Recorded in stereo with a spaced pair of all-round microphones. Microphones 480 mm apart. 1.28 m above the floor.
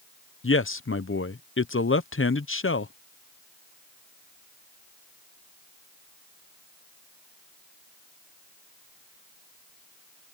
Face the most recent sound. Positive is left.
turn(degrees=30)  # may be behind; listen again after turning